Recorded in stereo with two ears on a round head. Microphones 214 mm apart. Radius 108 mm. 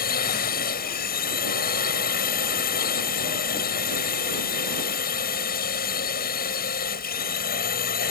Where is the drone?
40° left (ahead or behind).